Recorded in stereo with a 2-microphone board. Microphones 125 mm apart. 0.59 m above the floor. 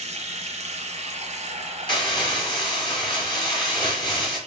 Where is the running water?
65° right (ahead or behind), 1.0 m.